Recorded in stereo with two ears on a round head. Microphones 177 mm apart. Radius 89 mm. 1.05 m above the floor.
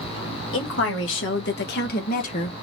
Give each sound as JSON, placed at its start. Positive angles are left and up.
{"t": 0.5, "sound": "a woman speaking", "side_deg": 70, "distance_m": 1.8}